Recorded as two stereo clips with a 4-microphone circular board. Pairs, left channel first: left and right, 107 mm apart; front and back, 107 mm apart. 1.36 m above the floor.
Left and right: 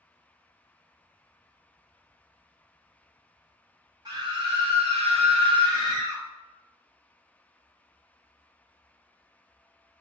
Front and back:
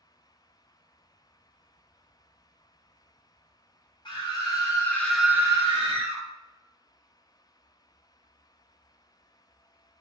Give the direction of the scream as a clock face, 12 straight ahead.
1 o'clock.